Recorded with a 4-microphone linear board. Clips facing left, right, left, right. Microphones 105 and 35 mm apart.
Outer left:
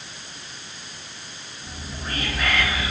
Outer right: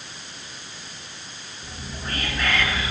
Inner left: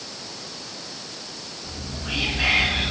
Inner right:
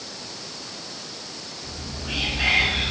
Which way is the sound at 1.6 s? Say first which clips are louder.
Even, inner left 1 dB; 10° left (ahead or behind).